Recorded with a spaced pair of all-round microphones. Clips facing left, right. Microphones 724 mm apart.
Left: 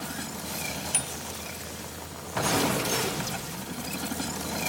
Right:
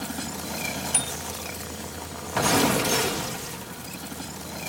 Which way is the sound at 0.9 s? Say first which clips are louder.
Right 4 dB; 35° right (ahead or behind).